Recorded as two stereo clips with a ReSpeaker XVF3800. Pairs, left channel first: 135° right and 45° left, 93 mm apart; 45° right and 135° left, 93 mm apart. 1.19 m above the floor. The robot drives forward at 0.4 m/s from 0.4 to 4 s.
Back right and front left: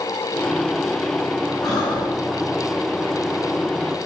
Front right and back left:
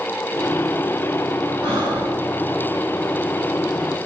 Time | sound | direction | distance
1.6 | breathing | 175° left | 2.5 m